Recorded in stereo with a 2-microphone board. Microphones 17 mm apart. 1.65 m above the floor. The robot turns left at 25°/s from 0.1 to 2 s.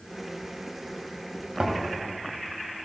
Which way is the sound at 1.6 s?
50° right (ahead or behind).